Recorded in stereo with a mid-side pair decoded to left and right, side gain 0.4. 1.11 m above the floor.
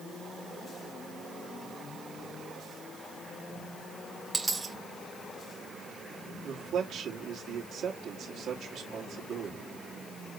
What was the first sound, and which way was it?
A dropped coin, 20° right.